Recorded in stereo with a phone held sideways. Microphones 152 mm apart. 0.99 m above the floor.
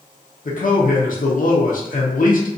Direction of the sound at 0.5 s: 65° left (ahead or behind).